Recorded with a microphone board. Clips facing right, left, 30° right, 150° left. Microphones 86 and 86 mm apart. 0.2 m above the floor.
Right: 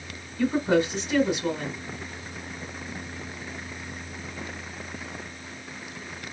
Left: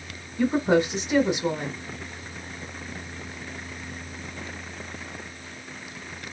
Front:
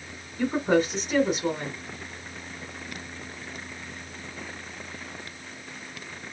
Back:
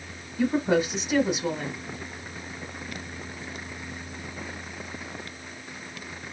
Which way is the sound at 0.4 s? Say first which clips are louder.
Left 1 dB, even; 70° left.